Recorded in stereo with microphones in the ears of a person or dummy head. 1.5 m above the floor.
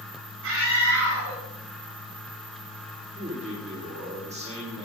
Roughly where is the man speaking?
Right.